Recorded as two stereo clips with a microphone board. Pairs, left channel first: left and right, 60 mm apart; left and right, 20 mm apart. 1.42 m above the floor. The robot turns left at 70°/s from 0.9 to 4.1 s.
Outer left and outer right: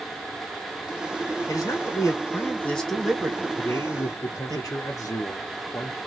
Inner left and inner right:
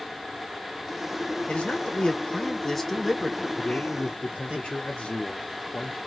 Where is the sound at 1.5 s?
75° left (ahead or behind), 2 m; by 4.6 s 75° right (ahead or behind), 2 m.